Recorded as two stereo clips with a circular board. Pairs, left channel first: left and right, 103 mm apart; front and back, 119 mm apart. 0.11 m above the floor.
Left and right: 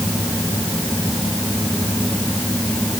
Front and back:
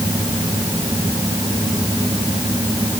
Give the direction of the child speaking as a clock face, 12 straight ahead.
No child speaking in this recording.